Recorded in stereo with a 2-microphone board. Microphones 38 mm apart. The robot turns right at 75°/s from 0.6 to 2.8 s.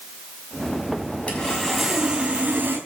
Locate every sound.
1.3 s sawing: 145° left, 5.5 m; by 2.8 s 100° right, 5.5 m